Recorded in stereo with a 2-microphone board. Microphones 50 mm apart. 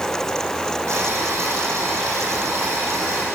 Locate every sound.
0.9 s boiling: 75° right (ahead or behind), 9 m